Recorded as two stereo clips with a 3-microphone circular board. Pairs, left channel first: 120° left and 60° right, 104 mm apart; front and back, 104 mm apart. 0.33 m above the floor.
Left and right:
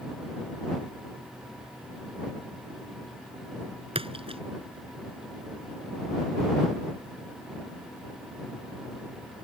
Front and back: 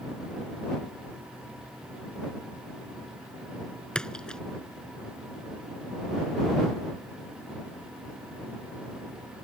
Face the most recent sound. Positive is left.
turn(degrees=-85)